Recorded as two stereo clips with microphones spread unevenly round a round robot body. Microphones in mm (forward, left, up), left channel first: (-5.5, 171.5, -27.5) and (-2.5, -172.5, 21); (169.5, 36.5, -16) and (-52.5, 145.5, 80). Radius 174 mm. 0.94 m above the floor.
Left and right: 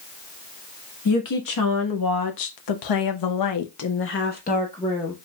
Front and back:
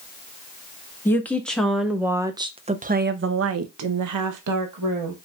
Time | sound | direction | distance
1.1 | a woman speaking | 50° left | 1.7 m